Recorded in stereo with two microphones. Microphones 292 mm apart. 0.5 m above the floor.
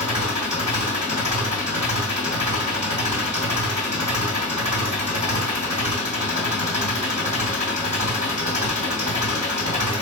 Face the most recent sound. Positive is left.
turn(degrees=-70)  # may be behind; listen again after turning